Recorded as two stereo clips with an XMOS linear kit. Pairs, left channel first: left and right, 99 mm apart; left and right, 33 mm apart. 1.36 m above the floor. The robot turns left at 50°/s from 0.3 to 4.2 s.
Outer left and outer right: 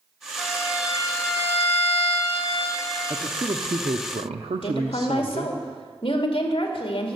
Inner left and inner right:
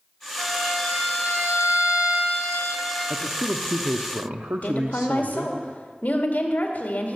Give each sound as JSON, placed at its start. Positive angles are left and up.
{"t": 0.4, "sound": "a violin", "azimuth_deg": 170, "distance_m": 5.0}
{"t": 3.1, "sound": "a man speaking", "azimuth_deg": -40, "distance_m": 0.7}
{"t": 4.6, "sound": "a woman speaking", "side_deg": 55, "distance_m": 2.0}